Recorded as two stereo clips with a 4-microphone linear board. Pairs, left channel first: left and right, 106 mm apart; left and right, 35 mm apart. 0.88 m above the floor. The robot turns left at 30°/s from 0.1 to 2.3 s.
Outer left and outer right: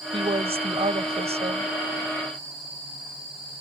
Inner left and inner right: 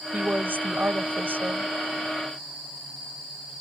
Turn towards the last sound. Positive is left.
turn(degrees=-125)